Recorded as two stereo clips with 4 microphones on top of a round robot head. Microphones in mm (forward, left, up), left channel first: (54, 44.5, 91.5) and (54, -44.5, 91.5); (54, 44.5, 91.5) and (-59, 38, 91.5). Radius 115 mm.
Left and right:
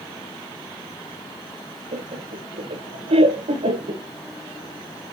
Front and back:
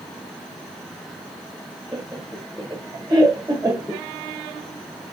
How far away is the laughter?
About 1.2 m.